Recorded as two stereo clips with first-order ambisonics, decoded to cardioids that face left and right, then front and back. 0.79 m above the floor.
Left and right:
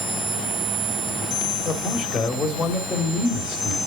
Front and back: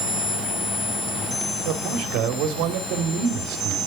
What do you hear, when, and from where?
1.6 s a man speaking: 160° left, 1.9 m